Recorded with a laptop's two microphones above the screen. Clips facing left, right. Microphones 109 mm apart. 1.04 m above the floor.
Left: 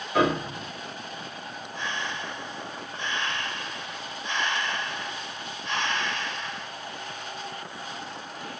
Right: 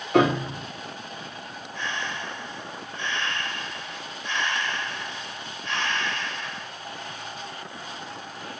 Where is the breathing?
20° left (ahead or behind), 1.3 m.